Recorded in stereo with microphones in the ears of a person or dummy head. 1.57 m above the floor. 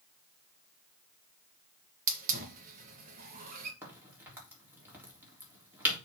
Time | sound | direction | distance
2.1 | a hiss | 55° right (ahead or behind) | 1.9 m
3.8 | a crack | 20° right (ahead or behind) | 3.5 m